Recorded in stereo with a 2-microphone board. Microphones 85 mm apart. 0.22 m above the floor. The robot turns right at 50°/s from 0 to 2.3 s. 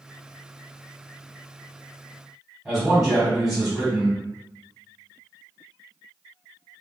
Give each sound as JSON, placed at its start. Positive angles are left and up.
{"t": 2.6, "sound": "a man speaking", "side_deg": -5, "distance_m": 1.5}